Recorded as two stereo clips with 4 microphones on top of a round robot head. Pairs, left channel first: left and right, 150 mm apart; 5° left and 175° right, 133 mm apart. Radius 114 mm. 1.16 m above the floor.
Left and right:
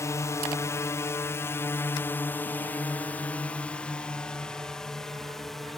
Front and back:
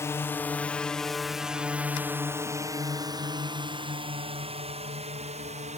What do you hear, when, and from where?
0.0 s a drone: 45° left; by 5.8 s straight behind